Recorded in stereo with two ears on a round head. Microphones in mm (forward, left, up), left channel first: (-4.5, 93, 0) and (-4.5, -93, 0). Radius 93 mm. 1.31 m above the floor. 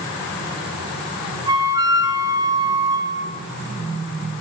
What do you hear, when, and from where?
1.5 s a flute: 20° right (ahead or behind), 3.5 m